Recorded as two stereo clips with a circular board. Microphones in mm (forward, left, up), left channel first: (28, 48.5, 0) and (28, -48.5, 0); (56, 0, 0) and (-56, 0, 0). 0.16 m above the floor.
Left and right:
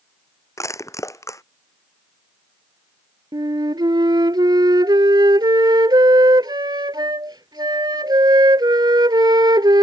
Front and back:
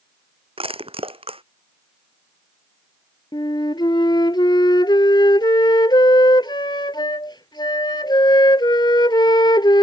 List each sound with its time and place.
0.6 s crushing: 150° left
3.3 s a flute: 45° right